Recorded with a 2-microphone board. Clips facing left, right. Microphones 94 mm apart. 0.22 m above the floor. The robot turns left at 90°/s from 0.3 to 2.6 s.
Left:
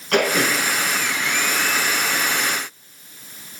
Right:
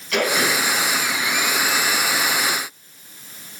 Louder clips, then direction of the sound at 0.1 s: Left 2 dB; 50° left (ahead or behind).